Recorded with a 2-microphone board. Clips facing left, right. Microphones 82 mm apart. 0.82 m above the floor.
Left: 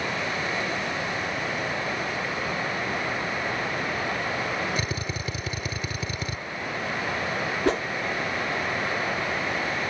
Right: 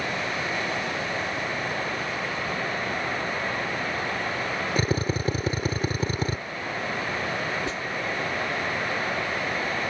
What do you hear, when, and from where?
4.8 s a drill: 40° right (ahead or behind)
7.7 s a whoosh: 60° left (ahead or behind)